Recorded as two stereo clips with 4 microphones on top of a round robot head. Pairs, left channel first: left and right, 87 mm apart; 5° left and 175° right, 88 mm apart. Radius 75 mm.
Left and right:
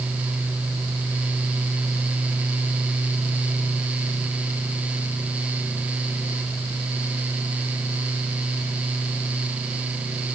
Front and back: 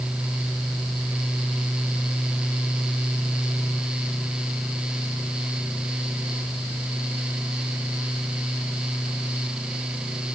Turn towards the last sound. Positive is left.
No sound to turn to.